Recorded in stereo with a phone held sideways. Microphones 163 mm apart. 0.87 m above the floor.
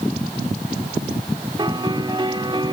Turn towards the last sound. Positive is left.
turn(degrees=-30)  # may be behind; listen again after turning